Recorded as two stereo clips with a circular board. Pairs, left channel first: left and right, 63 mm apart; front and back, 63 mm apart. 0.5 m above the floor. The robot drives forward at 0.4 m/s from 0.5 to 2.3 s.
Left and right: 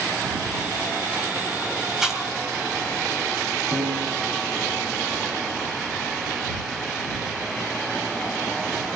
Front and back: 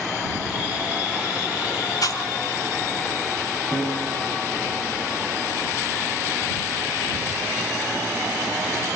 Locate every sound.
2.0 s chewing: 5° right, 3.5 m
3.7 s a piano: 70° right, 9 m